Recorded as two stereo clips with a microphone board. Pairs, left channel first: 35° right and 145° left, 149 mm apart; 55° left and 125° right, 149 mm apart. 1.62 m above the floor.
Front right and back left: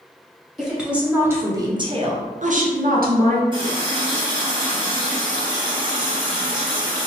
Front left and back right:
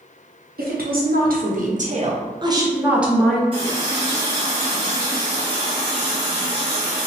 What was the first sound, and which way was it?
A woman speaking, 125° right.